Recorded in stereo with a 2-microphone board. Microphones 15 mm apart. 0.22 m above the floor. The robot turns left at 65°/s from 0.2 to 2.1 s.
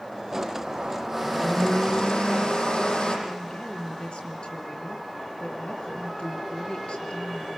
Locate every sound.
0.3 s a blender: 115° right, 8 m; by 3.2 s 130° left, 8 m
3.3 s a woman speaking: 70° left (ahead or behind), 5 m